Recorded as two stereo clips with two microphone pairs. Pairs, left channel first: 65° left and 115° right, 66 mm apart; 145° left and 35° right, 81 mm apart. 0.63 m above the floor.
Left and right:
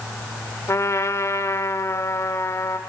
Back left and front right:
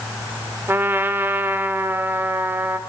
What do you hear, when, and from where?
0.7 s a trumpet: 25° left, 2.0 m